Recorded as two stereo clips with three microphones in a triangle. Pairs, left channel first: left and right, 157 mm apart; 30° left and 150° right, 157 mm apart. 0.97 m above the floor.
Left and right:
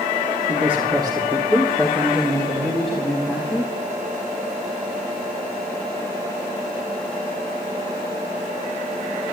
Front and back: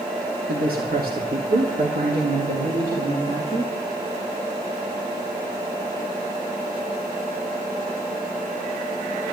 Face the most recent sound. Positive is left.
turn(degrees=175)